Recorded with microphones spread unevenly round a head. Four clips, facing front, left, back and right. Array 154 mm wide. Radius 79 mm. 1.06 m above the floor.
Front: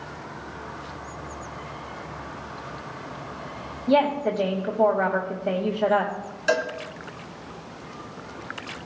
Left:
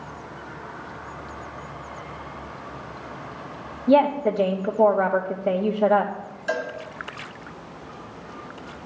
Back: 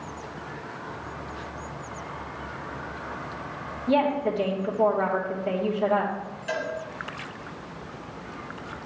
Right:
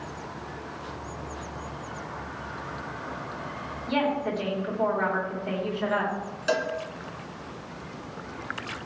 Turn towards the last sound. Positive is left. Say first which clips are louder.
# right 1 dB, front 7 dB
turn(degrees=-40)